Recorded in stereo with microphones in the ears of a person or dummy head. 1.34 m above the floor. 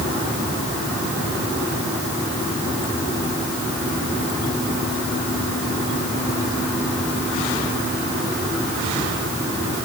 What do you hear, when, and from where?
Only background noise.